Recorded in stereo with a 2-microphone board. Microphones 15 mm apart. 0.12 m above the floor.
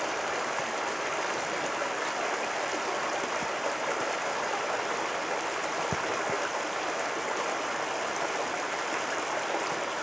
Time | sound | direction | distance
0.0 | running water | 5° right (ahead or behind) | 1.1 m